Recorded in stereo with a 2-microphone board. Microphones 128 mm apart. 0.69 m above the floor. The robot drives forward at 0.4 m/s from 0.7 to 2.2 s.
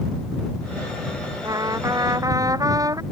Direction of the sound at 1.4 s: 30° right (ahead or behind).